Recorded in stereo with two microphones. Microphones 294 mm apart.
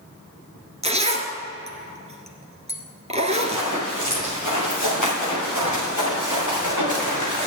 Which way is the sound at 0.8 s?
20° right (ahead or behind).